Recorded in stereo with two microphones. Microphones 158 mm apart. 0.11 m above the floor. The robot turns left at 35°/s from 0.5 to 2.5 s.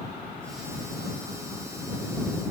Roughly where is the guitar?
I don't hear a guitar.